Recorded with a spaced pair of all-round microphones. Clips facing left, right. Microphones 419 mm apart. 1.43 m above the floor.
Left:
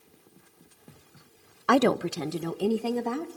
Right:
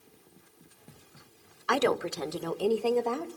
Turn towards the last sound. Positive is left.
turn(degrees=30)  # may be behind; listen again after turning